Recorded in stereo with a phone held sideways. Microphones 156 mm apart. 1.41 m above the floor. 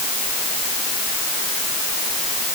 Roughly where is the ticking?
I don't hear ticking.